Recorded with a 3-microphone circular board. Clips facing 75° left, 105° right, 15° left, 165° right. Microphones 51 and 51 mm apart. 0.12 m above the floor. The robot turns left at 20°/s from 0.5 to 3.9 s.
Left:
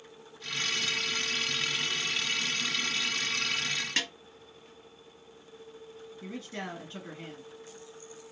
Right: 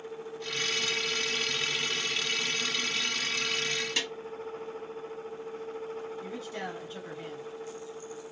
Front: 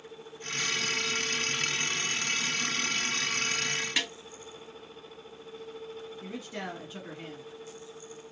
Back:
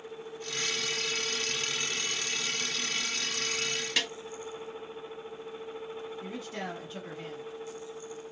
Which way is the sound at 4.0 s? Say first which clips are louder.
Left 3 dB, back 2 dB; 90° left.